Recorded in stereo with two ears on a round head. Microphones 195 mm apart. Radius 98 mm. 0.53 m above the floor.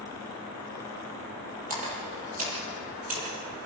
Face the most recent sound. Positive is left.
turn(degrees=-35)  # may be behind; listen again after turning